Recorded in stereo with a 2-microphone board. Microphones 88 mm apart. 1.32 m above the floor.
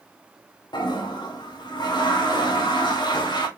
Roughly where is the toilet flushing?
Left.